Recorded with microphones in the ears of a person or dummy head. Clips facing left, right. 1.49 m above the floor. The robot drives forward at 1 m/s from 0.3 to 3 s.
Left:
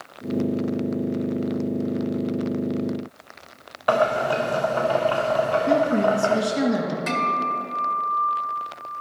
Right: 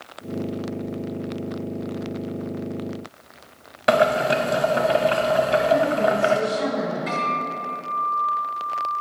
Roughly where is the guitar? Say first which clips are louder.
Left 1 dB; left.